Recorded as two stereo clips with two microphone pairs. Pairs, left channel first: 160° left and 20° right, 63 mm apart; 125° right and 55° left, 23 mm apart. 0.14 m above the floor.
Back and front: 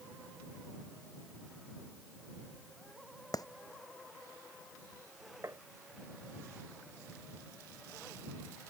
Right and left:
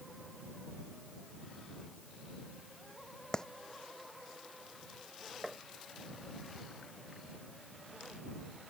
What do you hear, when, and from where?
3.3 s a clap: 175° left
5.4 s tapping: 15° right